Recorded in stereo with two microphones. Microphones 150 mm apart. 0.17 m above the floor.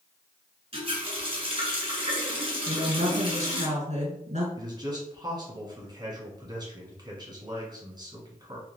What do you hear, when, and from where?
0.7 s a running tap: 40° right (ahead or behind), 1.2 m
2.7 s a woman speaking: 50° right (ahead or behind), 1.5 m
4.6 s a man speaking: 30° right (ahead or behind), 1.2 m